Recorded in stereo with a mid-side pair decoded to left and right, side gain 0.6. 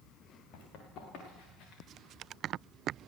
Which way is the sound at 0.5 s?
65° left.